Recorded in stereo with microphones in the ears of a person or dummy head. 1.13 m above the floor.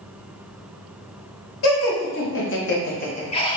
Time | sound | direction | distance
1.6 | laughter | 60° left (ahead or behind) | 1.4 m